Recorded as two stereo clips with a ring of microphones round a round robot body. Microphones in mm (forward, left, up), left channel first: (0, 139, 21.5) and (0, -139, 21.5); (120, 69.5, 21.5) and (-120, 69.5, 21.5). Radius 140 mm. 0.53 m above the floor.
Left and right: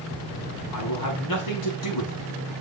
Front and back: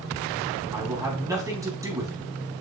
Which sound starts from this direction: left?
A man speaking, at 0.7 s.